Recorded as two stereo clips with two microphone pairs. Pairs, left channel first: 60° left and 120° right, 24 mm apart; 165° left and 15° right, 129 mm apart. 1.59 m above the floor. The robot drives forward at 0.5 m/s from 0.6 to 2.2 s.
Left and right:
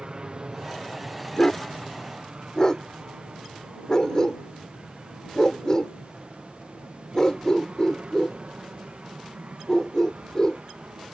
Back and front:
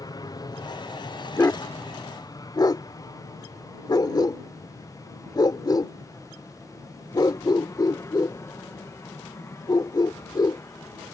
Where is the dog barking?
100° left; by 10.6 s 115° left.